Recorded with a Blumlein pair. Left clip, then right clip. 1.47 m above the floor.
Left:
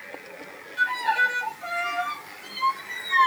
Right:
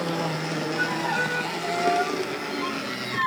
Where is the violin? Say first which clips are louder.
Left 5 dB; 25° left, 0.7 m.